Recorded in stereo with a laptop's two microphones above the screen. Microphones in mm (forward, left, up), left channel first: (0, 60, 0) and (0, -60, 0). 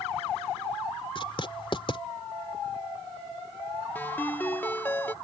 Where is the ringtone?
15° left (ahead or behind).